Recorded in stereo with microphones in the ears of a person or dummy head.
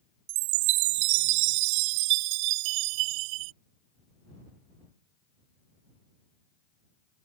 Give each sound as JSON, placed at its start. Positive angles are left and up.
{"t": 0.3, "sound": "a chime", "side_deg": -50}